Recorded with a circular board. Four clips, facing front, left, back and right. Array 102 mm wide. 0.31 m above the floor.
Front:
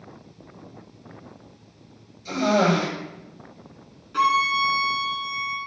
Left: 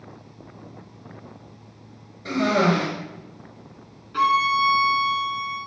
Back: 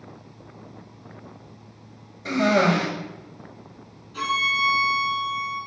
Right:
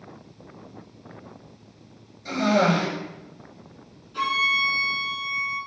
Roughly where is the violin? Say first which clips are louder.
Left 7 dB, front 5 dB; ahead left.